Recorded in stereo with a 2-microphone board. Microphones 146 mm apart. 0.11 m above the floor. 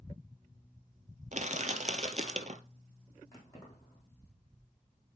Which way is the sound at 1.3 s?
55° right (ahead or behind).